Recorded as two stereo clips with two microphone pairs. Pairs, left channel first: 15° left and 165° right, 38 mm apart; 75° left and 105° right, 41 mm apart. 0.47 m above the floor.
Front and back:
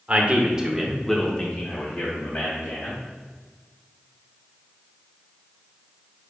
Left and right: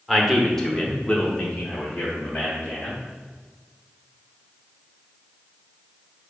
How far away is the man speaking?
About 1.0 m.